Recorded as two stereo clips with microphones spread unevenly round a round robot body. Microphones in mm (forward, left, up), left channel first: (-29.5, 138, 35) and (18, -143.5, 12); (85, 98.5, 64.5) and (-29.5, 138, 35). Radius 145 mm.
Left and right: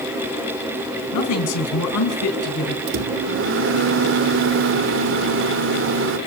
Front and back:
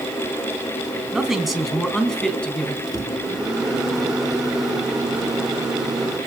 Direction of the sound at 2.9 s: 120° right.